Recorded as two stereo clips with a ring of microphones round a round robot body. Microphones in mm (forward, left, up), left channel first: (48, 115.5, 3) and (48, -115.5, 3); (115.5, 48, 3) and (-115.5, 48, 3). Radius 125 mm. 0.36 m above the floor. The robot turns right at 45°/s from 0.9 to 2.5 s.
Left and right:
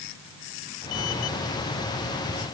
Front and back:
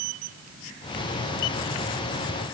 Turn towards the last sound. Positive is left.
No sound to turn to.